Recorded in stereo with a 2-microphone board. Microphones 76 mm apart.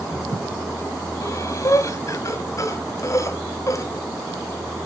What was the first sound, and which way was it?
Breathing, 45° left (ahead or behind).